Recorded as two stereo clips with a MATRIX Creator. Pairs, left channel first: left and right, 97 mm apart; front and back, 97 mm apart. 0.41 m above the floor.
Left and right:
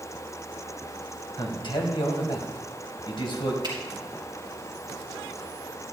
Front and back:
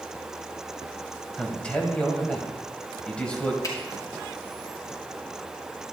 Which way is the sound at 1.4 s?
75° left.